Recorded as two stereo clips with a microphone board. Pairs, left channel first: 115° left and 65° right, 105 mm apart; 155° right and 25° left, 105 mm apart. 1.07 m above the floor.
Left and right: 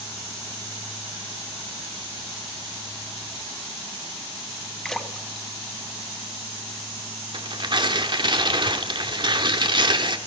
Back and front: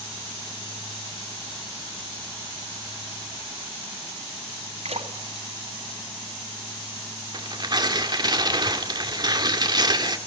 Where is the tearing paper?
25° right, 2.5 m.